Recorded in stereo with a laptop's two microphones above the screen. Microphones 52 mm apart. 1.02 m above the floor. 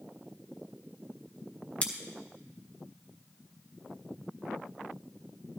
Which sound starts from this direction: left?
Scissors, at 1.8 s.